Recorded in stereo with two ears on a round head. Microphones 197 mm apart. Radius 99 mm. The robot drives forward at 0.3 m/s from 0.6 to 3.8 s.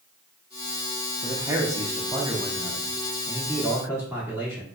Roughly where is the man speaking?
Centre.